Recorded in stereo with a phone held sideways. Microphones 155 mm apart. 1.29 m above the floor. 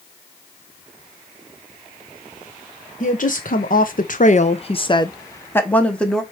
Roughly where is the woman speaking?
Left.